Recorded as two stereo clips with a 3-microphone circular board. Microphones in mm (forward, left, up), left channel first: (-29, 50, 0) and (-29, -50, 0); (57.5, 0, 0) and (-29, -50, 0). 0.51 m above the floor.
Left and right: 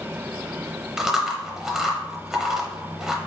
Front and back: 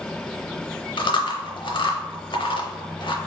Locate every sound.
1.0 s chewing: 5° right, 0.7 m